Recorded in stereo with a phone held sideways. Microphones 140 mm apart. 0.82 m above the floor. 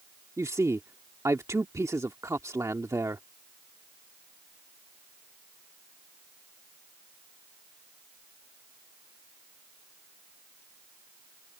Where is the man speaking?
20° right (ahead or behind).